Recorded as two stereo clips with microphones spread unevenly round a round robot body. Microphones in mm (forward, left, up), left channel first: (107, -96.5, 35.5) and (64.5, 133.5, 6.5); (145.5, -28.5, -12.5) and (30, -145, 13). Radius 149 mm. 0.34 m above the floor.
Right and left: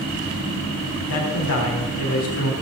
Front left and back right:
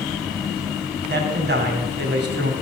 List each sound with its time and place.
1.1 s a man speaking: 120° right, 2.5 m